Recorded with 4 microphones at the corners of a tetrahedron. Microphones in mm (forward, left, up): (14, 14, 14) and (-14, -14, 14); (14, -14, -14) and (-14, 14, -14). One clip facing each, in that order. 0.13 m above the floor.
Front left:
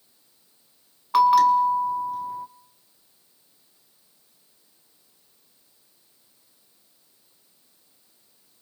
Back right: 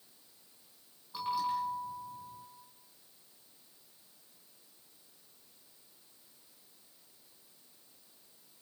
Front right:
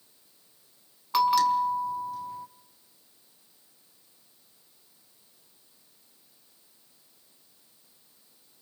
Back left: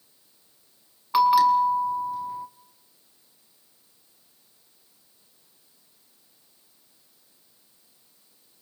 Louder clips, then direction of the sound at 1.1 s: Front left 18 dB, back left 5 dB; 60° left.